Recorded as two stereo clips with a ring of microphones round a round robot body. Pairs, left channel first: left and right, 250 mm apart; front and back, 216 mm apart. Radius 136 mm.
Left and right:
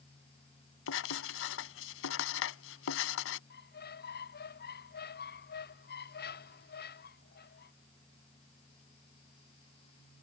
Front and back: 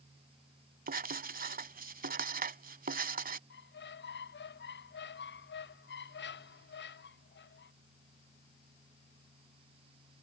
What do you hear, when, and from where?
0.9 s writing: 130° left
3.5 s a squeak: 35° left